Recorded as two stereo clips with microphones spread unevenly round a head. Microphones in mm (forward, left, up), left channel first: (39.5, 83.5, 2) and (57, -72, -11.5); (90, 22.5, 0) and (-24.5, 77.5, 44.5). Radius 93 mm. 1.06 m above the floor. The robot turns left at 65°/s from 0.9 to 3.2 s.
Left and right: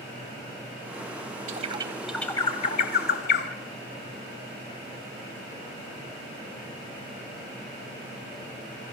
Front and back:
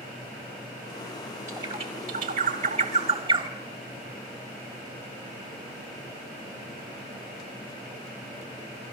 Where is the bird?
135° right, 2 m; by 3.5 s 115° left, 2 m.